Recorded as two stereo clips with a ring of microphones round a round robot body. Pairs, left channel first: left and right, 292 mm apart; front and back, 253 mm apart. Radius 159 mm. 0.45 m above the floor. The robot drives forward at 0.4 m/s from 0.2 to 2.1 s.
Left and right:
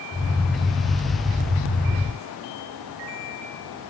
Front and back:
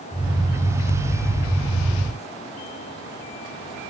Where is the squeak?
I don't hear a squeak.